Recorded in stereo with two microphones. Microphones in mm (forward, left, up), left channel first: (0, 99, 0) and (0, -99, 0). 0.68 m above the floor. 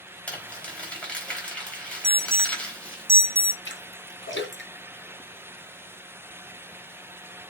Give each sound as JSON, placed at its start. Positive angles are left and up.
{"t": 0.3, "sound": "crumpling", "side_deg": 5, "distance_m": 4.0}
{"t": 2.0, "sound": "an alarm", "side_deg": -15, "distance_m": 1.5}
{"t": 3.6, "sound": "a splash", "side_deg": 75, "distance_m": 3.0}